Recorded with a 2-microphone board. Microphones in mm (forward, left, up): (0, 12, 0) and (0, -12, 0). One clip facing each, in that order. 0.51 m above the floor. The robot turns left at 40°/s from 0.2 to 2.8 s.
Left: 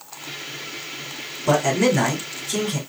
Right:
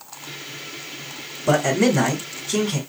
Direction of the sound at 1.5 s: 20° left.